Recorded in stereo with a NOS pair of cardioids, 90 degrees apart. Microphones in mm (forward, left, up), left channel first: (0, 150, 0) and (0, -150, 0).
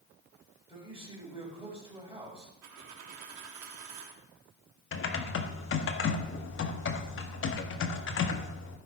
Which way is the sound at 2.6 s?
70° right.